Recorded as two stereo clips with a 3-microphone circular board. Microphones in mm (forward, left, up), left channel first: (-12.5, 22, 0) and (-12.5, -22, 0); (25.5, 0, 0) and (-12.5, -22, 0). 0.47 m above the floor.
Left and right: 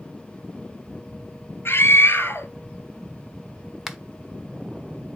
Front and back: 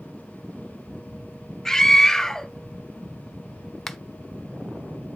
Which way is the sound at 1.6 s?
115° left.